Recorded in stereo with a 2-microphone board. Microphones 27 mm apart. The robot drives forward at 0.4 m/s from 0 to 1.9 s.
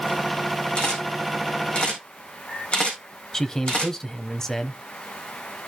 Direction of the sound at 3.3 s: 20° left (ahead or behind).